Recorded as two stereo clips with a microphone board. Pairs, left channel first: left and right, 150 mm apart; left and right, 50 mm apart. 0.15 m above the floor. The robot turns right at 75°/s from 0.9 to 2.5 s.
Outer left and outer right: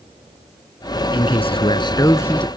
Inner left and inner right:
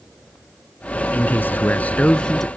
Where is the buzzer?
I don't hear a buzzer.